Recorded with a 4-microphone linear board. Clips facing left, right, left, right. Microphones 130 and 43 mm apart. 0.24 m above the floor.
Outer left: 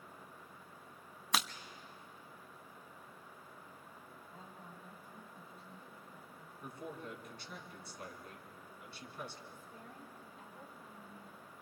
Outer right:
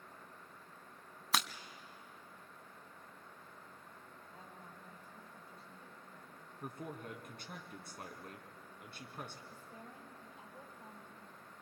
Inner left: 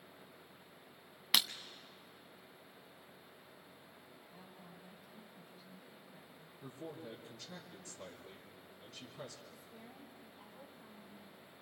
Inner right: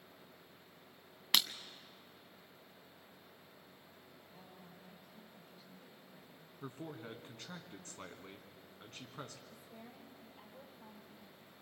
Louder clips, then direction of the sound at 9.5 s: Even, inner right 1 dB; 80° right.